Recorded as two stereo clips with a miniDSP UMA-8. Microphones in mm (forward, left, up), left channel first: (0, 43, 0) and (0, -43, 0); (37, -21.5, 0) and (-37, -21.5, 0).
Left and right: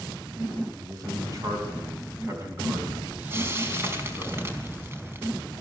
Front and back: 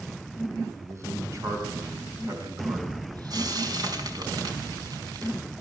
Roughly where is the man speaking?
Behind right.